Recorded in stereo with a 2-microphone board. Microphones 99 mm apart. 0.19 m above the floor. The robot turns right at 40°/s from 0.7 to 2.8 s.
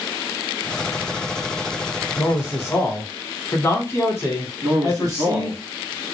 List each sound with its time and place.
2.2 s a man speaking: 30° left (ahead or behind), 1.2 m; by 5.6 s 25° left (ahead or behind), 1.2 m
4.6 s a man speaking: 35° right (ahead or behind), 1.3 m